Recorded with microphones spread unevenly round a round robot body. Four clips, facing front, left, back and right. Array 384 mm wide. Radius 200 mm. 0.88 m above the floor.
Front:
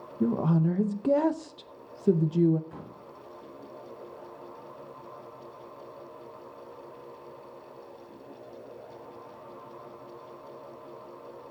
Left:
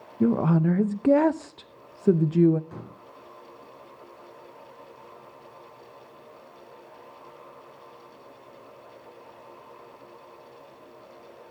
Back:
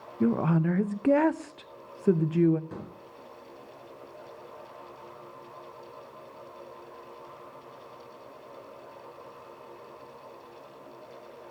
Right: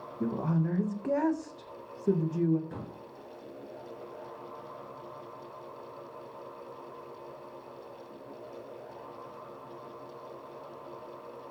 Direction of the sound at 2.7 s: 170° right.